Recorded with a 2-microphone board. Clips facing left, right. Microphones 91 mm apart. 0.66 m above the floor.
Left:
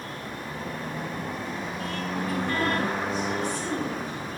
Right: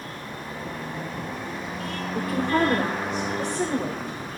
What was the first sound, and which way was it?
A woman speaking, 70° right (ahead or behind).